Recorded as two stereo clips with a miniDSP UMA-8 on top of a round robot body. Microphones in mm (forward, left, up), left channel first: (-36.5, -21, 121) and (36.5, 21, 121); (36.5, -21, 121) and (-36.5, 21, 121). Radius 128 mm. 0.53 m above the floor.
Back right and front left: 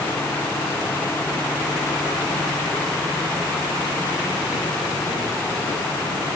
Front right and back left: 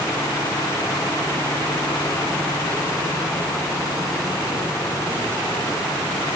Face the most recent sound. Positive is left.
No sound to turn to.